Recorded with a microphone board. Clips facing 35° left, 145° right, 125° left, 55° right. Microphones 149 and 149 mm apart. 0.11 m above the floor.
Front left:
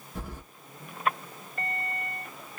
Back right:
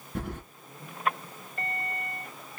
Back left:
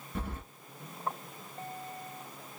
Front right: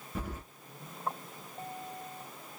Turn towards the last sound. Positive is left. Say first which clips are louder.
# back right 5 dB, even
turn(degrees=-140)